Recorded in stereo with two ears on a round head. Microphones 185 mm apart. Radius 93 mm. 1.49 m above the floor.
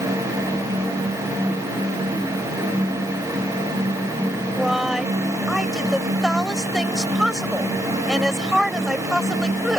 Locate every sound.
4.5 s a woman speaking: centre (ahead or behind)